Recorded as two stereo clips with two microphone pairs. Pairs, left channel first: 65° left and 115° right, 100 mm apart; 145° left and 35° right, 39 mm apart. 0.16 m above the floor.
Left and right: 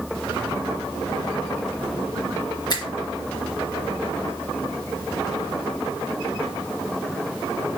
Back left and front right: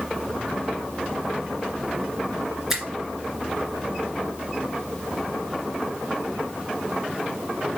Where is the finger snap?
40° left, 2 m.